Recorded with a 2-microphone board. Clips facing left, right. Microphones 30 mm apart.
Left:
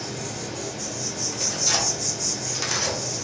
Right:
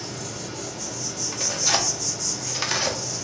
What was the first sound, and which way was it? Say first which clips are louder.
An insect: left 2 dB; 55° left (ahead or behind).